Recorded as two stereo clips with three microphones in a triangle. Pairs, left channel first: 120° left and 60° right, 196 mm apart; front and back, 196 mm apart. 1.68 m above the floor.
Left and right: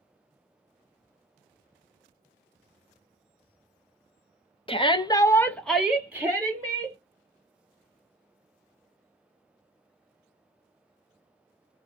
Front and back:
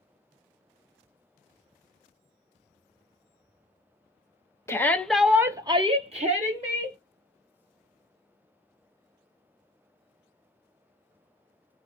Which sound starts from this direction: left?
A shout, at 4.7 s.